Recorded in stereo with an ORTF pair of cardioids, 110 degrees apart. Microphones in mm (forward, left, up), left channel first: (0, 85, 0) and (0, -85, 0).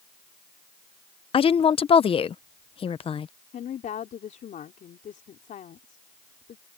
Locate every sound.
1.3 s a woman speaking: 35° left
3.5 s a woman speaking: 50° left